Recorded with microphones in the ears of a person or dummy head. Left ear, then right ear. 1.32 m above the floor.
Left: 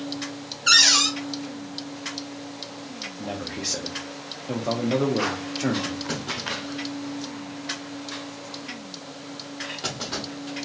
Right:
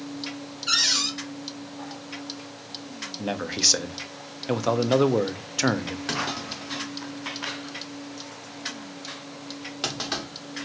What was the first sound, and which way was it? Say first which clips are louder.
A cupboard door: left 6 dB; 50° left (ahead or behind).